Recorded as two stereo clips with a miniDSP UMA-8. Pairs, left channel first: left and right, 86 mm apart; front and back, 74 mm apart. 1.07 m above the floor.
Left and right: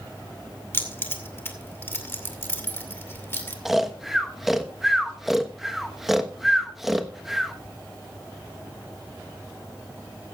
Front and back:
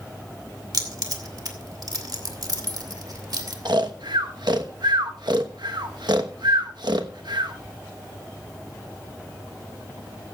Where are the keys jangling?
155° left, 2 m.